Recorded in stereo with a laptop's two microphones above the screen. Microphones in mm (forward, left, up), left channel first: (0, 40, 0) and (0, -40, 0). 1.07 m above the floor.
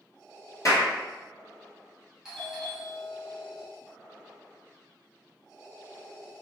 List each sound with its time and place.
0.7 s a clap: 45° left (ahead or behind), 0.9 m
2.2 s a doorbell: 10° right (ahead or behind), 0.6 m